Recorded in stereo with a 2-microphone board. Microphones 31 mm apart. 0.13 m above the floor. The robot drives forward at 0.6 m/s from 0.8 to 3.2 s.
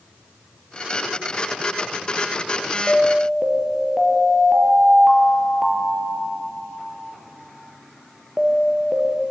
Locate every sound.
2.9 s an alarm: 15° right (ahead or behind), 3.5 m